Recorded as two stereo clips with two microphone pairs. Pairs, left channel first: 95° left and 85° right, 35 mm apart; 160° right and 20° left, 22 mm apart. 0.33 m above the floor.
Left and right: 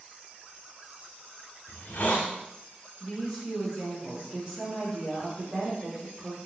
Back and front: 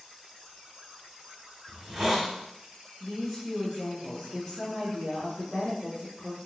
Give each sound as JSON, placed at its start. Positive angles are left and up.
{"t": 1.7, "sound": "a hiss", "azimuth_deg": 105, "distance_m": 0.9}
{"t": 3.0, "sound": "a woman speaking", "azimuth_deg": -140, "distance_m": 1.4}